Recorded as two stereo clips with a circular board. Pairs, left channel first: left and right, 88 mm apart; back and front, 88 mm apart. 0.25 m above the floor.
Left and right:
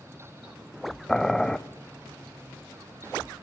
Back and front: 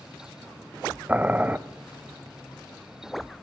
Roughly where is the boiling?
Ahead.